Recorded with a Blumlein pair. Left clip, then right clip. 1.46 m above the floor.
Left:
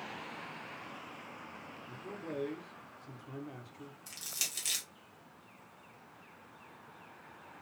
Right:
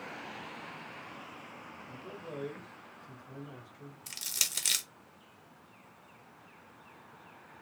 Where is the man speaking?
10° left, 0.7 m.